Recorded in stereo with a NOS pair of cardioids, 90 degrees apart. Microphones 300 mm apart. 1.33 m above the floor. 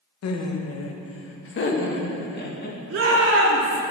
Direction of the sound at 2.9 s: 45° right.